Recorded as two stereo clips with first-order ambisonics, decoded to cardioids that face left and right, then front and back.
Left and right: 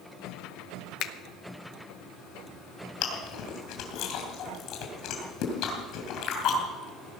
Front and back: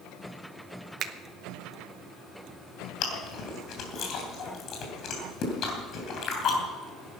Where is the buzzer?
I don't hear a buzzer.